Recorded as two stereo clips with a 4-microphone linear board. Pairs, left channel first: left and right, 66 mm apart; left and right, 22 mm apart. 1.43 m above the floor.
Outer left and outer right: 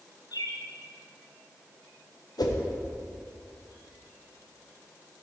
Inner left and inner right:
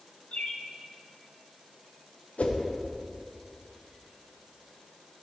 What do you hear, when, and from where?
0.3 s a bird: 75° left (ahead or behind), 0.8 m
2.4 s a whoosh: 80° left, 0.9 m